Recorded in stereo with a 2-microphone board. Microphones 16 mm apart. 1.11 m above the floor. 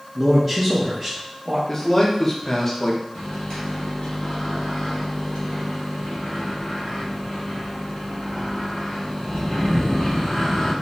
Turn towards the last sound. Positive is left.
turn(degrees=80)